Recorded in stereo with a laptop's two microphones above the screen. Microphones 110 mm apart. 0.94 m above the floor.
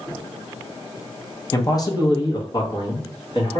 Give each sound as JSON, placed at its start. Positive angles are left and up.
{"t": 1.5, "sound": "a man speaking", "side_deg": 30, "distance_m": 0.6}